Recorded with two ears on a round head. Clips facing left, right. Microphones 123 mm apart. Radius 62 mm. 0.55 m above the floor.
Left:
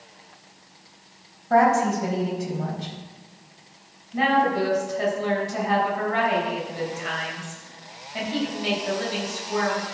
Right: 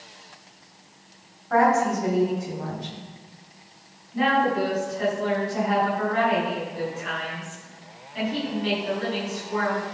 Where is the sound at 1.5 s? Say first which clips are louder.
Left 1 dB; 35° left (ahead or behind), 3.5 m.